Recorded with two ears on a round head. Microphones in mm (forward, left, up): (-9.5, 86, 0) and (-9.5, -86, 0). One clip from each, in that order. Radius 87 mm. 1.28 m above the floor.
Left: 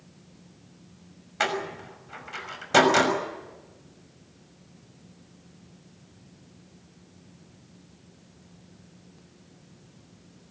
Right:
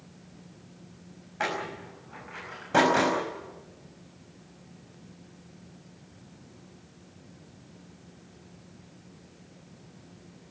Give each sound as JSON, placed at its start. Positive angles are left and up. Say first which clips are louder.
{"t": 1.4, "sound": "a door slam", "louder": "left 3 dB", "side_deg": 90, "distance_m": 6.0}